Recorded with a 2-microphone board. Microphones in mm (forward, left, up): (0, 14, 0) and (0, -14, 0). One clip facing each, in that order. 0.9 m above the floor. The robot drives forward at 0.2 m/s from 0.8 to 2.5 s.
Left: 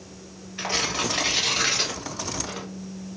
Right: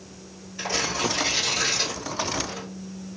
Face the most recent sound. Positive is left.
turn(degrees=50)  # may be behind; listen again after turning